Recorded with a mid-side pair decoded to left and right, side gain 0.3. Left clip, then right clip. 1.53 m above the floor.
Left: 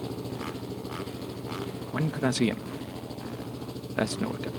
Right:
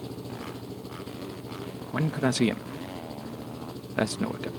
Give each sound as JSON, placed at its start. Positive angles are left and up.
{"t": 0.0, "sound": "an engine running", "azimuth_deg": 30}
{"t": 1.9, "sound": "a man speaking", "azimuth_deg": -15}